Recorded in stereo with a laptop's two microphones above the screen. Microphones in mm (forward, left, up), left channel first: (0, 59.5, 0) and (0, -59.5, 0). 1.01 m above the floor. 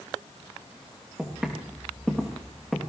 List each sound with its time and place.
1.2 s footsteps: 5° right (ahead or behind), 3.5 m; by 2.8 s 5° left (ahead or behind), 3 m